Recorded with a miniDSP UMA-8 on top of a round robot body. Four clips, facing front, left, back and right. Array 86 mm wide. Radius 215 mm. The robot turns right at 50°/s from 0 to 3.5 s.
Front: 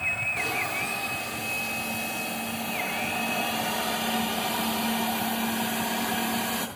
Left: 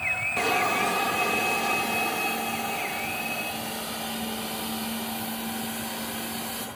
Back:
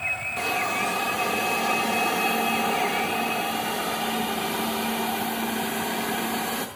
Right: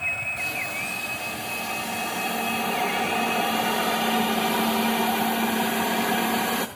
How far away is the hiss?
About 0.6 m.